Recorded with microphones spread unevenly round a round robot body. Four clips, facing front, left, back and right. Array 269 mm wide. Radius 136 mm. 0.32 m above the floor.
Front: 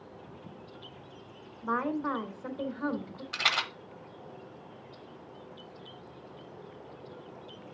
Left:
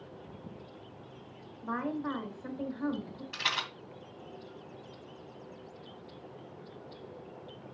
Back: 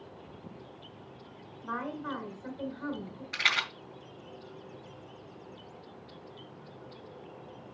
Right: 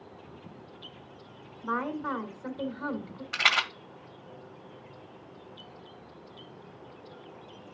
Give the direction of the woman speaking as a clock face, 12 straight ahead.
1 o'clock.